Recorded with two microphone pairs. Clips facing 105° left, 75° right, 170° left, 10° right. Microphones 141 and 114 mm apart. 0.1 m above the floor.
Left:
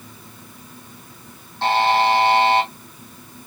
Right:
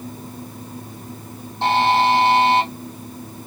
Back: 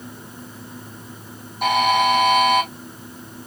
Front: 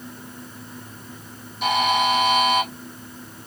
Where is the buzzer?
150° right, 3 m.